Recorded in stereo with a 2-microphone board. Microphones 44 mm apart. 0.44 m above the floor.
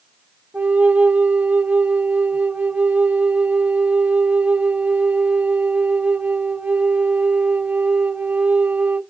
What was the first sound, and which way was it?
A flute, 40° right (ahead or behind).